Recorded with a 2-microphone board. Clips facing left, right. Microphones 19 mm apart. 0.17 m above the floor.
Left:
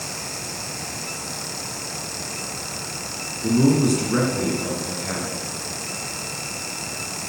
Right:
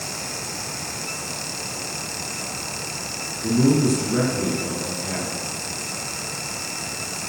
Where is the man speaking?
35° left (ahead or behind), 1.9 m.